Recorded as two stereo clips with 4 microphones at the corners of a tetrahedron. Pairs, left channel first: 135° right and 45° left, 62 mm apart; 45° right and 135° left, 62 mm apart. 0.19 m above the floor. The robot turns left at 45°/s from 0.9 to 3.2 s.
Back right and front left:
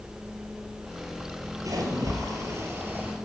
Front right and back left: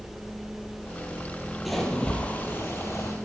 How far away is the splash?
About 3 m.